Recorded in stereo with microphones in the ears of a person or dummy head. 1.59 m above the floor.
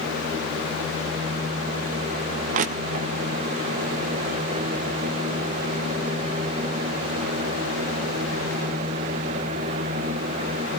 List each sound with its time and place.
2.5 s crushing: 35° right (ahead or behind), 0.6 m